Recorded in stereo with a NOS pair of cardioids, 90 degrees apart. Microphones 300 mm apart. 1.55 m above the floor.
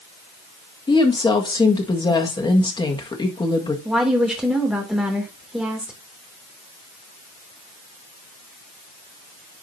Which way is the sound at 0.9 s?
15° left.